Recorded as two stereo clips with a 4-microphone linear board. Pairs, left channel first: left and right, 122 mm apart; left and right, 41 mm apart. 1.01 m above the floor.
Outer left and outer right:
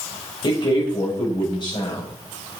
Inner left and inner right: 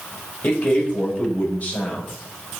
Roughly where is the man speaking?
Left.